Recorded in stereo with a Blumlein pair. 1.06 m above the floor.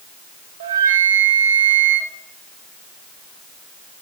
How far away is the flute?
About 0.8 m.